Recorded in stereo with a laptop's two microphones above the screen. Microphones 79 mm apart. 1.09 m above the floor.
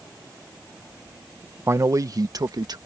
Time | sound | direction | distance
1.7 | a man speaking | 30° right (ahead or behind) | ?